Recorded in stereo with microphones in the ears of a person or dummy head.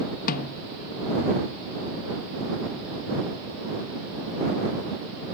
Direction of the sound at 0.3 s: 45° left (ahead or behind).